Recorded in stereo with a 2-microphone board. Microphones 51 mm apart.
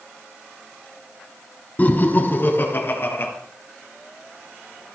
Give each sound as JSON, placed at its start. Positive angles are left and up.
{"t": 1.8, "sound": "laughter", "side_deg": 35, "distance_m": 1.4}